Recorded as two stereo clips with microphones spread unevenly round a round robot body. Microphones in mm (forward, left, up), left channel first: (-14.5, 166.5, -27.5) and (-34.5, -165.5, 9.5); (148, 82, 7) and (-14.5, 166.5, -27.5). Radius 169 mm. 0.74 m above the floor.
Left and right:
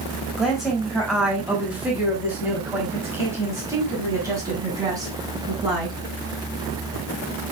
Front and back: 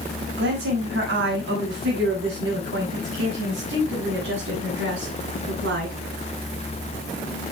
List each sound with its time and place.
0.4 s a woman speaking: 175° left, 5.5 m; by 6.0 s 170° right, 8 m